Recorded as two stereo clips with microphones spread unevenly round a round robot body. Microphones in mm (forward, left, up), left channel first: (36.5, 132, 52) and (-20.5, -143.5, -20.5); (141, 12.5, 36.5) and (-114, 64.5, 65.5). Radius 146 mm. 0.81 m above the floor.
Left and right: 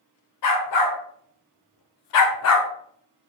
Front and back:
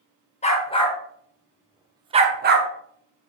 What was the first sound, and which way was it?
A dog barking, 55° left.